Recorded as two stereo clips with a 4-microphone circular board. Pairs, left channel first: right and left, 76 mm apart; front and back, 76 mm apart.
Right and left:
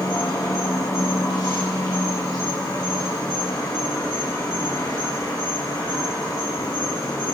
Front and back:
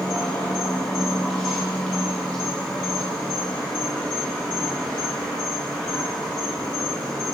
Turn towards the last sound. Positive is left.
turn(degrees=-75)